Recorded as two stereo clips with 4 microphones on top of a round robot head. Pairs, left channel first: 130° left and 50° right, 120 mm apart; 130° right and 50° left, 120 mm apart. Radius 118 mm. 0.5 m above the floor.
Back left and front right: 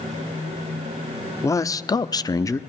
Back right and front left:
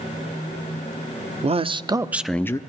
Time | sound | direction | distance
1.4 | a man speaking | 70° left | 1.1 m